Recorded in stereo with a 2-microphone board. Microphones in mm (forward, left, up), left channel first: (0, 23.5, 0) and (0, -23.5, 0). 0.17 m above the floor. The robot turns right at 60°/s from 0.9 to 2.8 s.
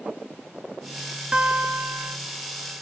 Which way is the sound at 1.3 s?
155° right.